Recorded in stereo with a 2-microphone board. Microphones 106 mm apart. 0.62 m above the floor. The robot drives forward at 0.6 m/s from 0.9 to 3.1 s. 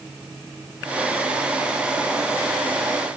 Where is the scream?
I don't hear a scream.